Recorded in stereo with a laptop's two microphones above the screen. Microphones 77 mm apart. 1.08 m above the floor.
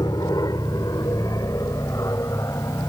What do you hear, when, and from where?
0.0 s an aircraft: 60° left (ahead or behind); by 2.9 s 40° left (ahead or behind)